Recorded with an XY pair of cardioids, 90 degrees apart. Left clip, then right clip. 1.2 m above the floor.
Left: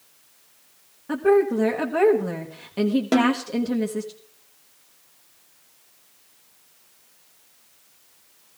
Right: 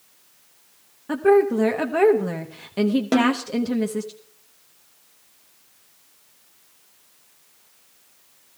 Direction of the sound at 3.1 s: Straight ahead.